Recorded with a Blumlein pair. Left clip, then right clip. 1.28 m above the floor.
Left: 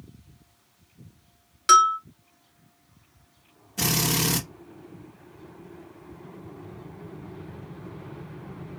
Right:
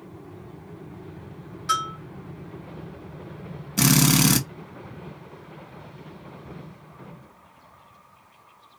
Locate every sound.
1.7 s a bell: 60° left, 0.9 m
3.8 s a drill: 60° right, 1.5 m